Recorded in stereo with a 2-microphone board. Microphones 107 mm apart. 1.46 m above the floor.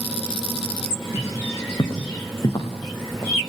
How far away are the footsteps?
About 4.5 m.